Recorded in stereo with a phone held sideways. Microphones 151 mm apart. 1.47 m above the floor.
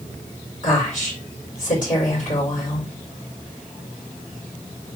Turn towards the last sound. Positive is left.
turn(degrees=55)  # may be behind; listen again after turning